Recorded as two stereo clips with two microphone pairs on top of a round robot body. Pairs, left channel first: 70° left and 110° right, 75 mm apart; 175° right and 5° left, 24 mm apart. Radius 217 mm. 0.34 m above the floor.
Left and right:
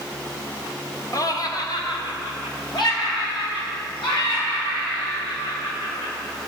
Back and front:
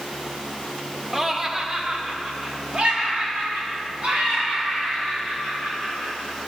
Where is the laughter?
85° left, 1.4 m; by 6.1 s 55° left, 7 m.